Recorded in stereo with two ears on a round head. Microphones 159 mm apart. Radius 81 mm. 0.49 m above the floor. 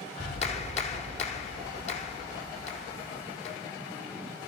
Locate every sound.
0.2 s a clap: 40° left (ahead or behind), 1.4 m